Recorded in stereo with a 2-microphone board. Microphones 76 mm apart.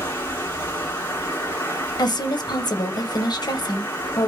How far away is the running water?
About 1.9 m.